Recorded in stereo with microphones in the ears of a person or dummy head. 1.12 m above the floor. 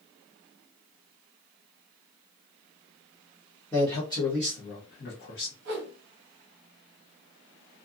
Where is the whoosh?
45° right (ahead or behind), 1.0 m.